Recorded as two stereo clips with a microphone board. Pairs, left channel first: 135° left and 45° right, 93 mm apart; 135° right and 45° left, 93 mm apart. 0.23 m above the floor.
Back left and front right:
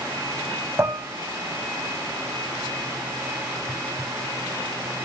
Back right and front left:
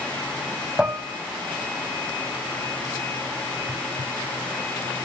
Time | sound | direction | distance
0.8 | dishes clattering | 20° right | 0.7 m